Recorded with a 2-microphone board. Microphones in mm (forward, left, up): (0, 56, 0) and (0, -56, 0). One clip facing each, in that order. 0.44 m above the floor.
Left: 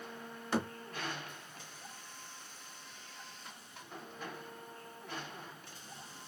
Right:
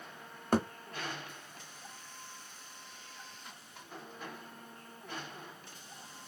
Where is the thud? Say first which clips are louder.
Right 4 dB; 50° right (ahead or behind), 0.7 m.